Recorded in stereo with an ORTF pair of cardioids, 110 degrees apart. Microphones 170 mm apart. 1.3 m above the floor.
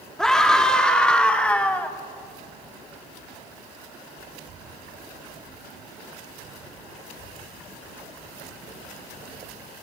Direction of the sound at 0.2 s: 5° left.